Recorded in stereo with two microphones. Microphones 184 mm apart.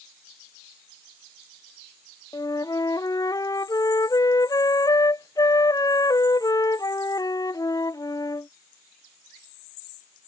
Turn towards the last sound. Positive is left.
turn(degrees=20)  # may be behind; listen again after turning